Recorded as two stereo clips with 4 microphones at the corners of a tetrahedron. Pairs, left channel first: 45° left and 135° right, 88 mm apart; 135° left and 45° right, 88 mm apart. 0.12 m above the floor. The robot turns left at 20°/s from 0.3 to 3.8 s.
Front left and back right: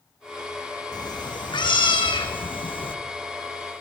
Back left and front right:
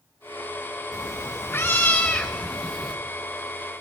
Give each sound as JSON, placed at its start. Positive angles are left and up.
{"t": 0.9, "sound": "a cat meowing", "azimuth_deg": 80, "distance_m": 1.0}